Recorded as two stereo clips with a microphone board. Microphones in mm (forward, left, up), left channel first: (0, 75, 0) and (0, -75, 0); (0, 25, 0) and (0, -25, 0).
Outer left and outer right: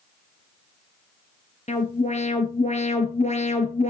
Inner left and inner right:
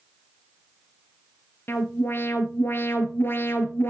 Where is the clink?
No clink in this recording.